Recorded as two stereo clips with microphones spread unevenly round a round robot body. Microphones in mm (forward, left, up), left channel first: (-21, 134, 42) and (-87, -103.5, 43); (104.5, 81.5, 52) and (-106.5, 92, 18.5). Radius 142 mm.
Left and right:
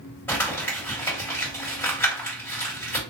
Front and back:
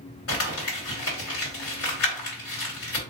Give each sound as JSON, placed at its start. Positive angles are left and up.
{"t": 0.3, "sound": "crumpling", "azimuth_deg": -5, "distance_m": 2.0}